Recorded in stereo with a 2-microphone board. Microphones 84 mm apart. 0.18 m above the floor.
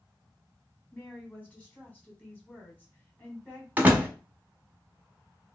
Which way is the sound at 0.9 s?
20° left (ahead or behind).